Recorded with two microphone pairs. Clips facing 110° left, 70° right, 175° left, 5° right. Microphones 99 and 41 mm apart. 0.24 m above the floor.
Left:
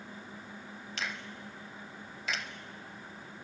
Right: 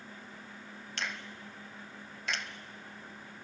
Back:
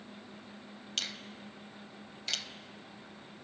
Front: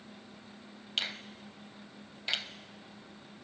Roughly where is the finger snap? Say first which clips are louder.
Even, front 3 dB; ahead.